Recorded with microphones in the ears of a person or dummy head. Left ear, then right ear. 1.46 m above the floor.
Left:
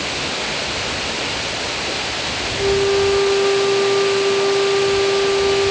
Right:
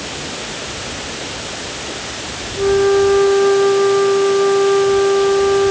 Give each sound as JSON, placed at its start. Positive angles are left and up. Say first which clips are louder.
{"t": 0.0, "sound": "running water", "louder": "left 4 dB", "side_deg": 35}
{"t": 2.6, "sound": "a flute", "louder": "right 4 dB", "side_deg": -85}